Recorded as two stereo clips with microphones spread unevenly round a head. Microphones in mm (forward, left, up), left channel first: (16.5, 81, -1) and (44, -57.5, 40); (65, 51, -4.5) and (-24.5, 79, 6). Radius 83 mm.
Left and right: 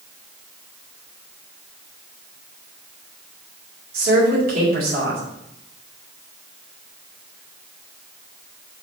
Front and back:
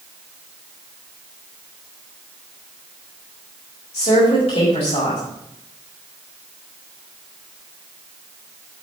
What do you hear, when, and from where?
3.9 s a woman speaking: 60° right, 4.5 m